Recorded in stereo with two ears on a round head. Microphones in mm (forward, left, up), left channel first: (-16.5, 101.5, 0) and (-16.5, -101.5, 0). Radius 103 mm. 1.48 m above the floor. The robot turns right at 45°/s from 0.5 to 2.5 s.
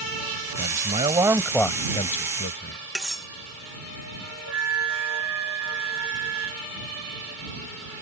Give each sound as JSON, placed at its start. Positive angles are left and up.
{"t": 0.6, "sound": "a man speaking", "azimuth_deg": -40}
{"t": 3.0, "sound": "cutlery clinking", "side_deg": 0}
{"t": 4.5, "sound": "a flute", "side_deg": -65}